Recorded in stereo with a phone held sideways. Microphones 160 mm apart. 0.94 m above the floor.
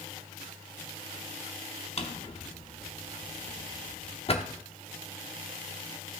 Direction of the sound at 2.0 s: 40° left (ahead or behind).